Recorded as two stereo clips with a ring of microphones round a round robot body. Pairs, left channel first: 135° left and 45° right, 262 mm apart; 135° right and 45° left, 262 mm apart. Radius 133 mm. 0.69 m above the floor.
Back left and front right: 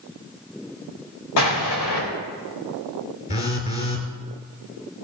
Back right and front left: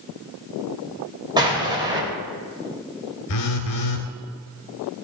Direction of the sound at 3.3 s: 155° right.